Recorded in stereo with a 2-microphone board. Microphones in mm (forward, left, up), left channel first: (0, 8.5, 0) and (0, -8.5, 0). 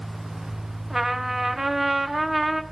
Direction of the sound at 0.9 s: 25° right (ahead or behind).